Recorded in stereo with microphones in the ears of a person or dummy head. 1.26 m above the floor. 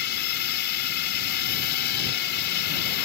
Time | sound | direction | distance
0.0 | a drone | 60° left (ahead or behind) | ?